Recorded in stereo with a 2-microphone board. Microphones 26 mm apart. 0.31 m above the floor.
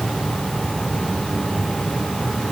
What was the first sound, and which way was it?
Only background noise.